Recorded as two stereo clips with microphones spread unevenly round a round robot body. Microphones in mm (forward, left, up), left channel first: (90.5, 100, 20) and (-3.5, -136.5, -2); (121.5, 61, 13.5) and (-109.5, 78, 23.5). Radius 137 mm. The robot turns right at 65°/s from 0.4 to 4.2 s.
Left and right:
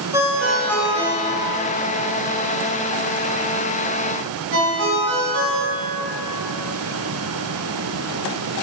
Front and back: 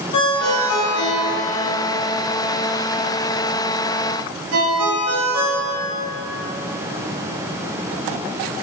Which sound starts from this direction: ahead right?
A ringtone, at 0.1 s.